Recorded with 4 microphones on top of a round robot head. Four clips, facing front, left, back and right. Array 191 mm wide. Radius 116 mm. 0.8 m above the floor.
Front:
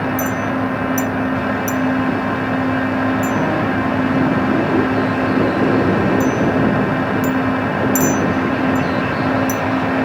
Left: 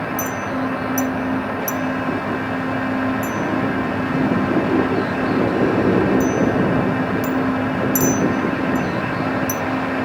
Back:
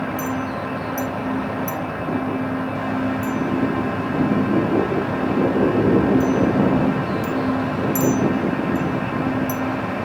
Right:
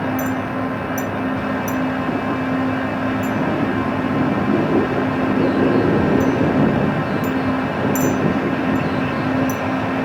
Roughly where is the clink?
Ahead left.